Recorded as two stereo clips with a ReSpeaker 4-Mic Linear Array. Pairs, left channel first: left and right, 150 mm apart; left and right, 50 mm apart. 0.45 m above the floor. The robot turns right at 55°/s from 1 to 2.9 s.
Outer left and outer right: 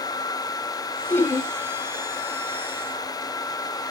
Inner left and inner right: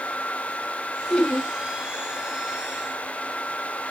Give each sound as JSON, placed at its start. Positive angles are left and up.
{"t": 1.1, "sound": "laughter", "side_deg": 15, "distance_m": 2.0}